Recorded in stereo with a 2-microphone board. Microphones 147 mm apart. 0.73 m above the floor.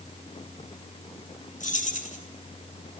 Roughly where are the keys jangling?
Left.